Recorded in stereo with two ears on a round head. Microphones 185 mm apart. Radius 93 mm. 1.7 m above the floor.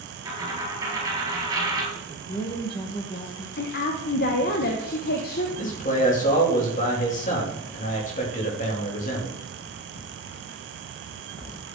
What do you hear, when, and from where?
0.2 s a dropped coin: 20° right (ahead or behind), 5.5 m
1.9 s a woman speaking: 25° left (ahead or behind), 2 m
3.6 s a woman speaking: 50° left (ahead or behind), 1.3 m
5.6 s a man speaking: 40° left (ahead or behind), 3.5 m